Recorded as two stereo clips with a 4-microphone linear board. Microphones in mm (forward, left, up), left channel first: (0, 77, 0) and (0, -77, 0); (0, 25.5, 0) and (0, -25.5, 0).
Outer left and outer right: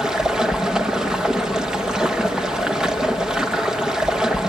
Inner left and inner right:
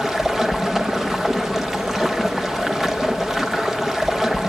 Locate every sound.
0.0 s running water: 5° right (ahead or behind), 1.2 m